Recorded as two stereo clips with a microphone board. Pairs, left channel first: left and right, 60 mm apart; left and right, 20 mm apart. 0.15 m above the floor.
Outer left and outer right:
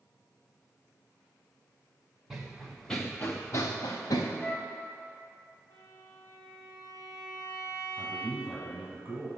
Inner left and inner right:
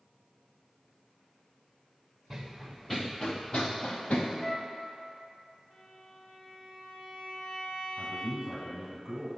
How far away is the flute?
About 0.6 m.